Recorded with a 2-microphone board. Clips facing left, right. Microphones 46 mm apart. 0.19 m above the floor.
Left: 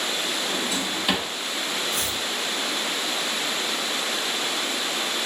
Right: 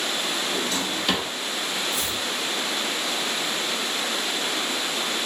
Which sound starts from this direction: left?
Chopping, at 1.9 s.